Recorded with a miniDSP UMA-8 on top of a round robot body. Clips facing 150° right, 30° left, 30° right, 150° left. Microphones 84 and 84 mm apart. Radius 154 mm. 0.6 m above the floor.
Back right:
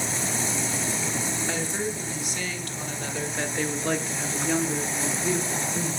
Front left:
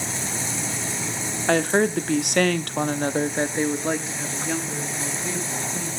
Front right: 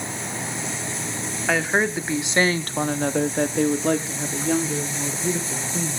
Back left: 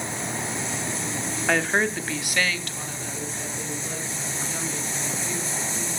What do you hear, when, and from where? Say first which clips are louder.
1.5 s a woman speaking: front left 15 dB, front right 1 dB; 55° left, 1.7 m; by 6.0 s 75° right, 3 m